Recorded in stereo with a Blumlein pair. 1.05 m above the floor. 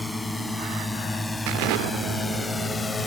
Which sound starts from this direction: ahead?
A drone, at 0.0 s.